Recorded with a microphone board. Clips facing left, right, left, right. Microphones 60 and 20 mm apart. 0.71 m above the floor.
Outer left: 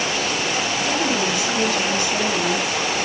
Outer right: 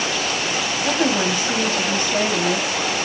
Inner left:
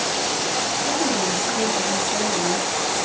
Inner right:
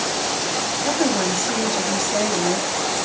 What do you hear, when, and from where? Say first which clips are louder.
0.8 s a woman speaking: outer right 4 dB, inner right 4 dB; 35° right (ahead or behind), 5 m